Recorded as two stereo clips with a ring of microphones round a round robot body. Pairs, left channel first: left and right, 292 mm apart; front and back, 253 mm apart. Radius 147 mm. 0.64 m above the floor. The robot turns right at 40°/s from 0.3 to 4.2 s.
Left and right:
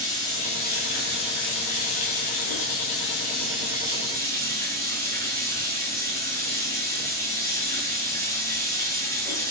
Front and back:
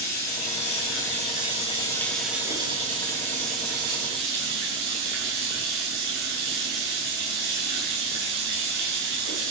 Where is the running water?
15° left, 6.5 m; by 9.5 s 170° left, 6.5 m.